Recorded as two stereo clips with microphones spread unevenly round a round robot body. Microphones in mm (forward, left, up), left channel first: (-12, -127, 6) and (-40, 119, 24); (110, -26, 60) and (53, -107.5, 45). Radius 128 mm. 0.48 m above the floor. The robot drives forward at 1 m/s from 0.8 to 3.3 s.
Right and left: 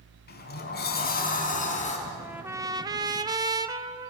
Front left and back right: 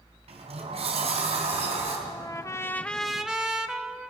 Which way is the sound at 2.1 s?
10° left.